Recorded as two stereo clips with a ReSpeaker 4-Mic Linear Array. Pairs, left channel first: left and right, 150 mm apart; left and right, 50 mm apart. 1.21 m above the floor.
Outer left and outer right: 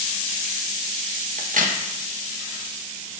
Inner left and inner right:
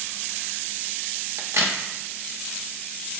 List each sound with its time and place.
1.4 s a crack: 70° right (ahead or behind), 0.9 m